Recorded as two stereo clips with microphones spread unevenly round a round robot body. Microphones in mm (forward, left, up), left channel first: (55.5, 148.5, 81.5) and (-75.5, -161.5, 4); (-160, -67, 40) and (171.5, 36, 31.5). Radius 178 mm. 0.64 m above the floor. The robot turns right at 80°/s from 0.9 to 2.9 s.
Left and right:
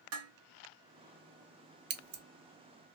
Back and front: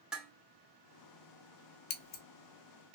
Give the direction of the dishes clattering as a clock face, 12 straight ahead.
2 o'clock.